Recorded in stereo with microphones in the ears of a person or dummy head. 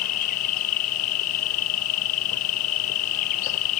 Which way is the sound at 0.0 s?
45° left (ahead or behind).